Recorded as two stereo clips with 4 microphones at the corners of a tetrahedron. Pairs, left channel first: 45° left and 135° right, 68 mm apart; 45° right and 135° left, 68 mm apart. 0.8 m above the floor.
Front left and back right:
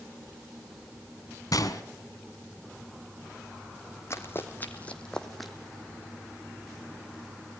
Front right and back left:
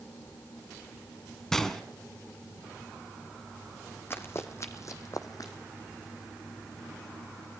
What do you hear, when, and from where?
1.5 s a gunshot: 40° left, 1.4 m
4.1 s running footsteps: 5° left, 1.7 m; by 5.5 s 45° right, 1.5 m